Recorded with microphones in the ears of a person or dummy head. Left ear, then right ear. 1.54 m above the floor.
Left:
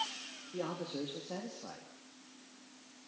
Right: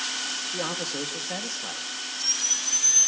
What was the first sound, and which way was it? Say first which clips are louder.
A man speaking: right 10 dB; 60° right (ahead or behind).